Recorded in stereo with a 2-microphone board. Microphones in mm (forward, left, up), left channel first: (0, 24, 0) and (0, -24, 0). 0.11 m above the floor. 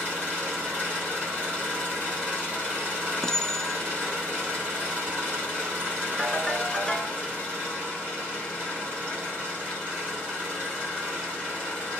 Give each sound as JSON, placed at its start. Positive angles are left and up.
{"t": 0.0, "sound": "an engine running", "side_deg": -20, "distance_m": 3.0}
{"t": 3.2, "sound": "a clink", "side_deg": 10, "distance_m": 0.7}
{"t": 6.2, "sound": "a ringtone", "side_deg": 15, "distance_m": 0.5}